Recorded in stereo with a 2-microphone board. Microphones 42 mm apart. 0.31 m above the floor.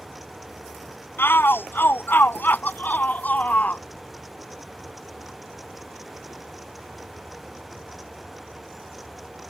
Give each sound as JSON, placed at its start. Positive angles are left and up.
{"t": 1.2, "sound": "a shout", "side_deg": 65}